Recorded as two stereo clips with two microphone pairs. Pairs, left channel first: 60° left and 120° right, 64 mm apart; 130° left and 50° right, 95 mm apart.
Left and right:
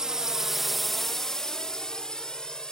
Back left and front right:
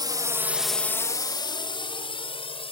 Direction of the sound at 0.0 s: 45° right.